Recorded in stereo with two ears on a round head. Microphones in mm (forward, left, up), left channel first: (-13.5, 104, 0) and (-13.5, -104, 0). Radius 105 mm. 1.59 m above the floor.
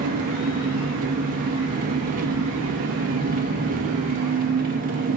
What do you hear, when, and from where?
0.0 s an engine running: 40° right (ahead or behind), 2.0 m